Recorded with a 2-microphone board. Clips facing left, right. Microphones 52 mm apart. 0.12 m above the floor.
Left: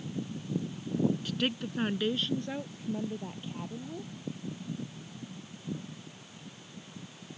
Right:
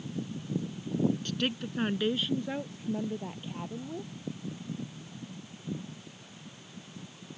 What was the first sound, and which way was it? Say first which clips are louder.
A woman speaking: even; 5° left (ahead or behind).